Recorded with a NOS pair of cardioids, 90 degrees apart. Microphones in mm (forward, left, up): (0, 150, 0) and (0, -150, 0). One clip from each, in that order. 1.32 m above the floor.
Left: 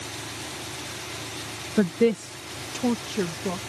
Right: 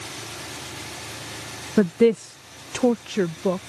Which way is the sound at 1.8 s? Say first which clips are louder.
Right 4 dB; 30° right.